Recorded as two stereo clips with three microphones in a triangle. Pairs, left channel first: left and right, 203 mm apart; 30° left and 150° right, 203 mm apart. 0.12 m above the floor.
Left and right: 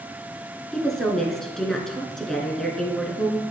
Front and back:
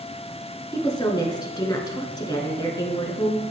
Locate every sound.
0.7 s a woman speaking: 5° left, 1.1 m